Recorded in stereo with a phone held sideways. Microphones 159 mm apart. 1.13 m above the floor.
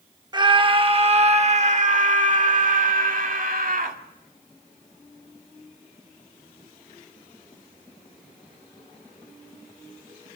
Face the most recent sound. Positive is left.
turn(degrees=-65)  # may be behind; listen again after turning